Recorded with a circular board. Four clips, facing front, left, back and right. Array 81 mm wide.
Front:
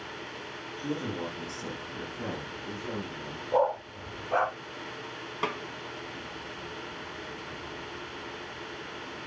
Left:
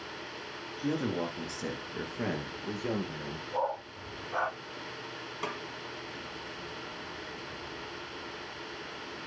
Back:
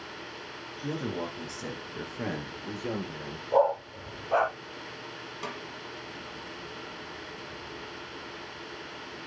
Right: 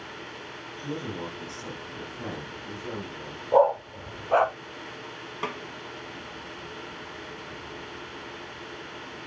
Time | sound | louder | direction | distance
0.8 | a man speaking | left 3 dB, even | 105° left | 3 m
3.5 | a dog barking | right 13 dB, back 2 dB | 100° right | 1.0 m
5.4 | a snare drum | right 4 dB, front 7 dB | 30° right | 1.0 m